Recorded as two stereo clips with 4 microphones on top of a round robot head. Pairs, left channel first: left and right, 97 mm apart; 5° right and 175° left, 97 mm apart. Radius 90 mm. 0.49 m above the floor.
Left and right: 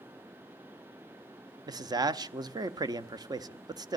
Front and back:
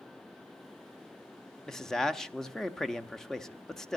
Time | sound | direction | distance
1.7 | a man speaking | 85° right | 0.8 m